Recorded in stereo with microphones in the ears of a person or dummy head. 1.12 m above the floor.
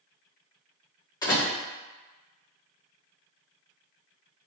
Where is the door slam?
20° left (ahead or behind), 1.8 m.